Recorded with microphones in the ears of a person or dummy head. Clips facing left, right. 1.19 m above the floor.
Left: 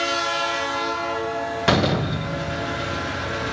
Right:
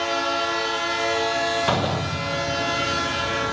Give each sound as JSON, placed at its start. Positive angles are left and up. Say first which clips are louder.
{"t": 1.7, "sound": "a door slam", "louder": "left 3 dB", "side_deg": 30, "distance_m": 0.8}